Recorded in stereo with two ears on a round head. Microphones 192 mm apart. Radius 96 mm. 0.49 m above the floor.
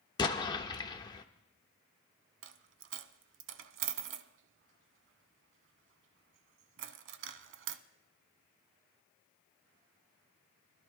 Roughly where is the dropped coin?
Right.